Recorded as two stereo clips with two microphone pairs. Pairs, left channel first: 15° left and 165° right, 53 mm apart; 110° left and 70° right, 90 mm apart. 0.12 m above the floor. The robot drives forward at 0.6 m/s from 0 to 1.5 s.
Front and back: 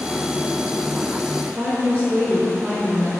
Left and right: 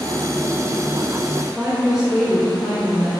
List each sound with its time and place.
1.6 s a woman speaking: 150° right, 1.2 m